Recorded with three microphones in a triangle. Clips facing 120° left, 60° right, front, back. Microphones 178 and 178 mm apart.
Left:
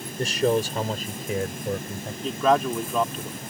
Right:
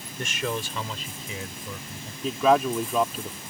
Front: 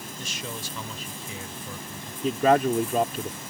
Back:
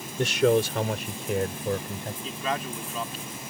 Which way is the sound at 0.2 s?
175° left.